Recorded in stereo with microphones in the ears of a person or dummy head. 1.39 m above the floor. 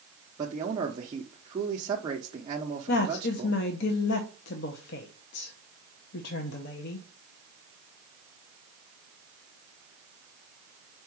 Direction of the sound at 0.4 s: 25° right (ahead or behind).